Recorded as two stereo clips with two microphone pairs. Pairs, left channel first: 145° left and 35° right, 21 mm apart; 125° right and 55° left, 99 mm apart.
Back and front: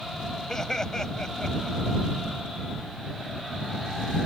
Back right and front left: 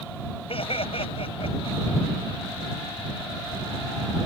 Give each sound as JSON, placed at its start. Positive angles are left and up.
{"t": 0.5, "sound": "laughter", "azimuth_deg": -150}